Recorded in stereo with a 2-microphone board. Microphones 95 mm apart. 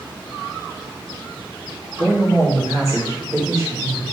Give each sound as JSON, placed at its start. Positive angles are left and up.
{"t": 2.0, "sound": "a man speaking", "side_deg": -40, "distance_m": 1.8}